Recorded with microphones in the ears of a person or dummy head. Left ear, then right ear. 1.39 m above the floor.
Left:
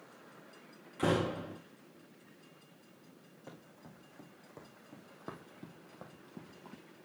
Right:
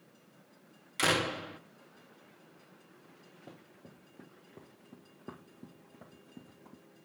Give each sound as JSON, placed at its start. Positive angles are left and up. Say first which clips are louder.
{"t": 1.0, "sound": "a door slam", "louder": "right 3 dB", "side_deg": -65, "distance_m": 0.6}
{"t": 3.5, "sound": "running footsteps", "louder": "left 2 dB", "side_deg": 65, "distance_m": 3.5}